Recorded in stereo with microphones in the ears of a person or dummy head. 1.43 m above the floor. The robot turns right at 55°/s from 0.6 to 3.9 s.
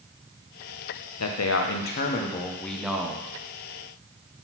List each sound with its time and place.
1.2 s a man speaking: 90° left, 0.8 m; by 3.3 s 155° right, 0.8 m